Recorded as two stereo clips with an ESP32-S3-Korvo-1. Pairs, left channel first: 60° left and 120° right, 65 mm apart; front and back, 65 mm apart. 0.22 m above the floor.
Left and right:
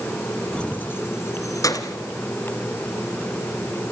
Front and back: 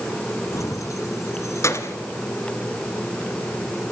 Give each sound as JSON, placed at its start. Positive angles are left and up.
{"t": 0.5, "sound": "keys jangling", "azimuth_deg": -15, "distance_m": 1.3}